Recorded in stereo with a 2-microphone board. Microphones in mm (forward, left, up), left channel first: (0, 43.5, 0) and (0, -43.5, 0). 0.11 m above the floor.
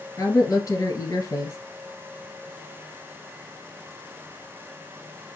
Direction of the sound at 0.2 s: 40° left (ahead or behind).